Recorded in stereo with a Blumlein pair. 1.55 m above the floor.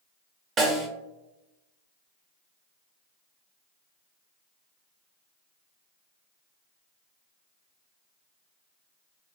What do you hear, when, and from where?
0.6 s a snare drum: 25° right, 0.8 m